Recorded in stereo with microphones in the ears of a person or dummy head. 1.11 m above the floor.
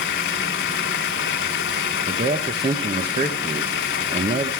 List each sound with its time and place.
0.0 s running water: 60° left (ahead or behind), 1.0 m
2.1 s a man speaking: 30° right (ahead or behind), 1.1 m